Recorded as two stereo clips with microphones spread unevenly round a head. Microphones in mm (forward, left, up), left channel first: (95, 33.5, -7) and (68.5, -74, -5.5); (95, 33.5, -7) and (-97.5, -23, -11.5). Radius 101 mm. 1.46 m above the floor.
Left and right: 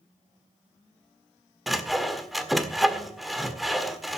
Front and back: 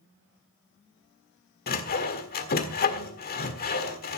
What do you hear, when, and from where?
1.7 s sawing: 15° right, 1.6 m